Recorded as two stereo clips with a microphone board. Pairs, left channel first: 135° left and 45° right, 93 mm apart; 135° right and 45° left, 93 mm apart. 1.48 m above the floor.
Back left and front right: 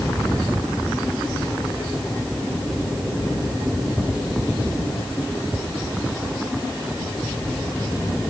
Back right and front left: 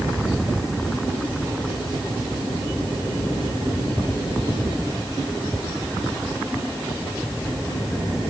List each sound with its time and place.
Only background noise.